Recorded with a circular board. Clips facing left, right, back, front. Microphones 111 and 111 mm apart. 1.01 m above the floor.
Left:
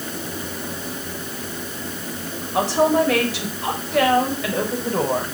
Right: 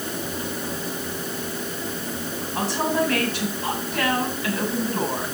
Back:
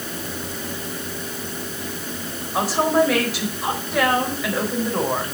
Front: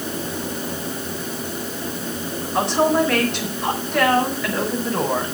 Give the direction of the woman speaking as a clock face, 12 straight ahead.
9 o'clock.